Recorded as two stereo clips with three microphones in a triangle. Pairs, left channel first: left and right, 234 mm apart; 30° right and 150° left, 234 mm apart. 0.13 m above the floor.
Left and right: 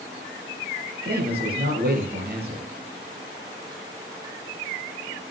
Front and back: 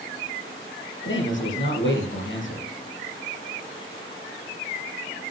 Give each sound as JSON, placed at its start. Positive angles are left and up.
{"t": 1.1, "sound": "a man speaking", "azimuth_deg": -50, "distance_m": 4.0}